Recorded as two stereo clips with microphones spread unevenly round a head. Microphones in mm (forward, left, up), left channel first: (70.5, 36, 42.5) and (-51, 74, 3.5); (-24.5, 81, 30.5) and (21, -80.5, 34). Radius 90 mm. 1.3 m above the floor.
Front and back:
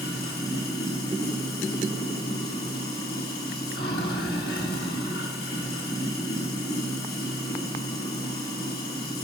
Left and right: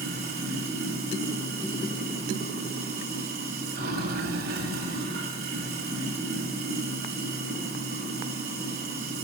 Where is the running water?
40° right, 2.5 m.